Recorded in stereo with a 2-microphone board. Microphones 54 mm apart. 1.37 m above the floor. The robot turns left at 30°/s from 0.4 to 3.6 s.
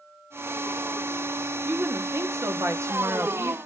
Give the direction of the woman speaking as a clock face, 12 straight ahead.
2 o'clock.